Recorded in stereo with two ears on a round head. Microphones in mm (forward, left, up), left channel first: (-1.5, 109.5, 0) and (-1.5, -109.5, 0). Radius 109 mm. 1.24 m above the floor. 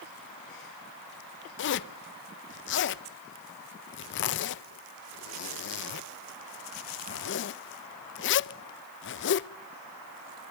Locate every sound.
1.6 s a zipper: 50° left (ahead or behind), 0.5 m